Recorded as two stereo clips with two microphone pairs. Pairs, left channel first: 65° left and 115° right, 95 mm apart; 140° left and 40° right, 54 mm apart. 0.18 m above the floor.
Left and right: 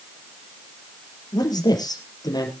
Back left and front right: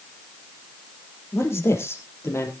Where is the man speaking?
105° left, 4.5 m.